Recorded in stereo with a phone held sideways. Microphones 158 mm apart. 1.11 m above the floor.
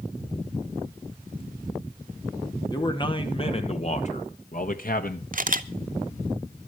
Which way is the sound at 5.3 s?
60° right (ahead or behind).